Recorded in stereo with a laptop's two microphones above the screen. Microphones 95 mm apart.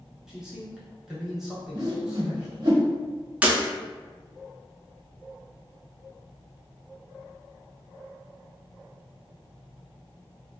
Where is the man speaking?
5° right (ahead or behind), 0.7 m.